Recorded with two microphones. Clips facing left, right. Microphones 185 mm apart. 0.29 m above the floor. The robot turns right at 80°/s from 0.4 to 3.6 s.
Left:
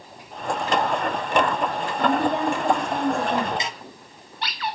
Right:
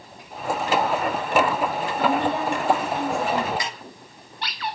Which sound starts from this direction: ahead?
A woman speaking, at 2.0 s.